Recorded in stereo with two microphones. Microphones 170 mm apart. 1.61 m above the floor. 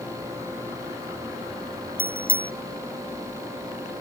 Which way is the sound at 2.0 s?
30° left (ahead or behind).